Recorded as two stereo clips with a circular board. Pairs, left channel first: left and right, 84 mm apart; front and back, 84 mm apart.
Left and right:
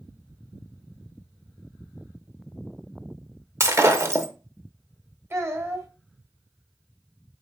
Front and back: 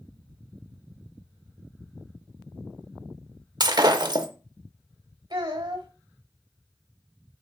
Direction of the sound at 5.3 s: 150° right.